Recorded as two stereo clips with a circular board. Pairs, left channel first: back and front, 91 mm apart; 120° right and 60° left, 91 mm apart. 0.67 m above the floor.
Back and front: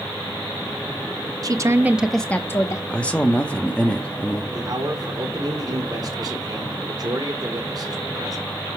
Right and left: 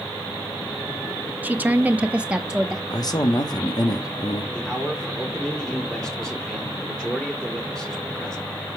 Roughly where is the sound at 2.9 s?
Right.